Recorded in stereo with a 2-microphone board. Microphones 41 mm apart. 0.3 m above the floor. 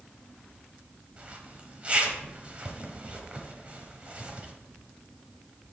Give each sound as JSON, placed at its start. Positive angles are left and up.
{"t": 1.2, "sound": "a zipper", "side_deg": -30, "distance_m": 1.0}